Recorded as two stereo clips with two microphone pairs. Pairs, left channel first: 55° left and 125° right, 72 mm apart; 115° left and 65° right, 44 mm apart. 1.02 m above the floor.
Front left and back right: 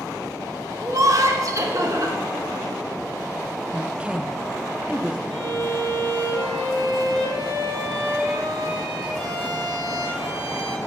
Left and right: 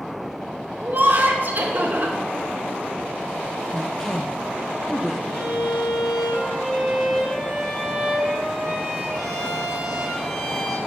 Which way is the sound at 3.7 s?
175° right.